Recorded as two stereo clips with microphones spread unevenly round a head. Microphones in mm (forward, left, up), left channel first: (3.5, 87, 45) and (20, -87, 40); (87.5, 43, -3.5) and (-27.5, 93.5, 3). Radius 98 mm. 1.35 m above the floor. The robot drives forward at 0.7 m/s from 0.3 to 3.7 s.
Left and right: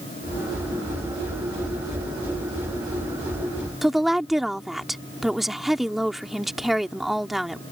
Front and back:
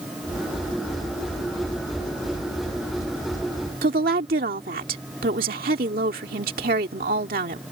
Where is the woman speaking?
175° right.